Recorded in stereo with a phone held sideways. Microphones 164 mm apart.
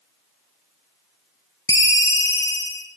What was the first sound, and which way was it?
A ringtone, 20° left (ahead or behind).